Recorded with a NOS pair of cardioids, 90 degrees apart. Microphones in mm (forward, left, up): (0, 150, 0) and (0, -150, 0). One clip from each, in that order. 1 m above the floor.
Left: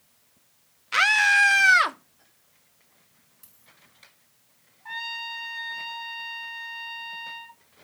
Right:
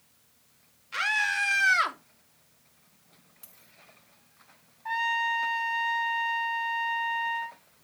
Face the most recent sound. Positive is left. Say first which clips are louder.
# right 6 dB
turn(degrees=-30)